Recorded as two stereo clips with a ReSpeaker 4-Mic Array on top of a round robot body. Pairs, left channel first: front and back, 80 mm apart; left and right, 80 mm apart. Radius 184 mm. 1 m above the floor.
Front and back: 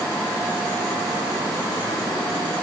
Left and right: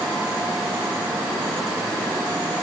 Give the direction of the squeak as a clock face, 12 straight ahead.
I don't hear a squeak.